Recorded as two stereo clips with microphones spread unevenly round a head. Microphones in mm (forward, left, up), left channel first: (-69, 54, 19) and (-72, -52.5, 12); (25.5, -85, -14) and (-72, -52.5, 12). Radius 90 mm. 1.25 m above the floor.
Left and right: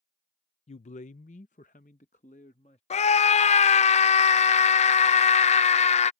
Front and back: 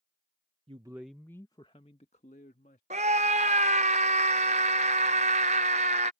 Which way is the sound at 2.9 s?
105° left.